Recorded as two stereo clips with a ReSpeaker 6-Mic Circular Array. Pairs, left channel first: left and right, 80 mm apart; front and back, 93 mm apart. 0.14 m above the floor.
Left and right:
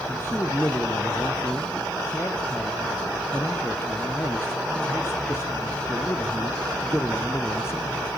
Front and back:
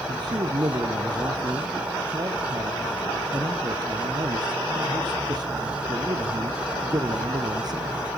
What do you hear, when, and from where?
0.1 s a man speaking: 140° left, 3 m